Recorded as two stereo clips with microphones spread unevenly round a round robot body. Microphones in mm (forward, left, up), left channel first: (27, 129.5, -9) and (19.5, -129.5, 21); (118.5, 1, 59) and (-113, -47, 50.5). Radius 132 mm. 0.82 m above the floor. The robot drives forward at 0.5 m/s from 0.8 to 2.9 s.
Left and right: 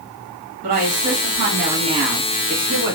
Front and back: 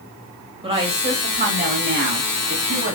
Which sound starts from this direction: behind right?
A woman speaking, at 0.6 s.